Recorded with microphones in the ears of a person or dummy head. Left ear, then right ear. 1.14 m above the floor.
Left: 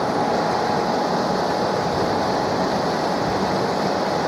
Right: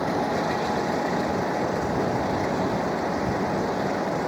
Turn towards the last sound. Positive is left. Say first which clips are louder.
# left 5 dB
turn(degrees=85)